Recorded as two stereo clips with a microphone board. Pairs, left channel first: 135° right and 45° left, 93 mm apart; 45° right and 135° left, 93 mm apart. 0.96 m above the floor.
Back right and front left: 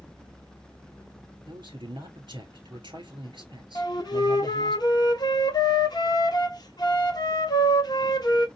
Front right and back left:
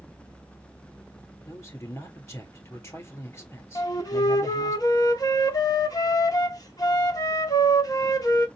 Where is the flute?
95° right, 1.0 m.